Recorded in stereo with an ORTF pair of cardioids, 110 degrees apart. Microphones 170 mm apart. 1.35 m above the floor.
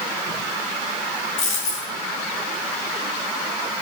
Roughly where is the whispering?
I don't hear whispering.